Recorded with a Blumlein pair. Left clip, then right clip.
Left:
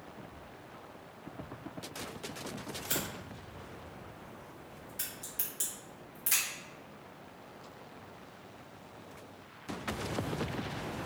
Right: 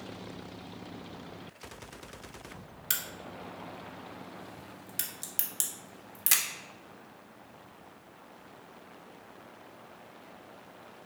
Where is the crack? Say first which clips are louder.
Right 3 dB; 30° right, 1.0 m.